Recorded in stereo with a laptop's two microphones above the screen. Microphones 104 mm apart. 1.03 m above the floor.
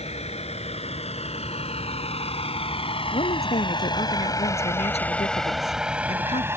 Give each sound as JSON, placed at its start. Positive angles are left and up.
{"t": 0.0, "sound": "a vehicle", "side_deg": 85}
{"t": 3.1, "sound": "a woman speaking", "side_deg": 85}